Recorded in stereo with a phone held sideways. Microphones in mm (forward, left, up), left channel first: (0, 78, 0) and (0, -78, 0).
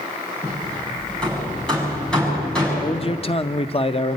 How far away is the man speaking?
About 0.6 m.